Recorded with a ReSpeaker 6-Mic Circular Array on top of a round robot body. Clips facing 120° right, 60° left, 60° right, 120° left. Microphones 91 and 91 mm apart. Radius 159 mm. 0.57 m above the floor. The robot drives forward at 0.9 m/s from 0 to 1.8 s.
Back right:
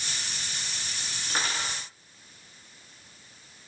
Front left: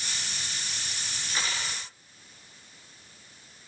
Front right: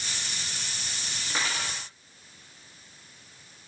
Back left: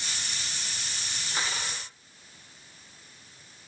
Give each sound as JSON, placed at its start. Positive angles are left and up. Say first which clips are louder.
{"t": 1.3, "sound": "cutlery clinking", "louder": "back right 3 dB, front right 2 dB", "azimuth_deg": -75, "distance_m": 6.5}